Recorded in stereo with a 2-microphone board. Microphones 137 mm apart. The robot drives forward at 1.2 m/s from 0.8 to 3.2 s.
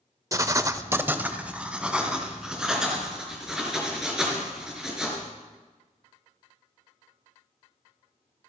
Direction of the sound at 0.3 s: 25° right (ahead or behind).